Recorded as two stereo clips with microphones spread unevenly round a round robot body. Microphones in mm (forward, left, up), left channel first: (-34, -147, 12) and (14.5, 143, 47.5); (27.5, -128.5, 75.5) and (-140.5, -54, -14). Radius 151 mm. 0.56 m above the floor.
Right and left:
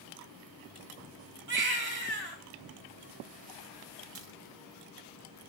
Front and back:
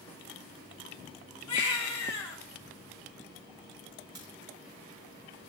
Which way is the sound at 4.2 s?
115° left.